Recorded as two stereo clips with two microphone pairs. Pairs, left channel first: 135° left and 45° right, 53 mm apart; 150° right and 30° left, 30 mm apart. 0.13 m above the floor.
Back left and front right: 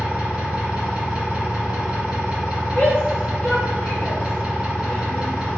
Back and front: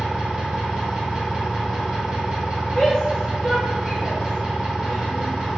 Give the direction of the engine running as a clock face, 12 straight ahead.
12 o'clock.